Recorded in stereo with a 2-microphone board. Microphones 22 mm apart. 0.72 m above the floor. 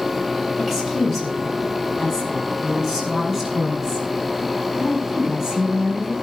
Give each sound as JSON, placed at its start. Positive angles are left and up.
{"t": 0.6, "sound": "a woman speaking", "side_deg": -5, "distance_m": 5.5}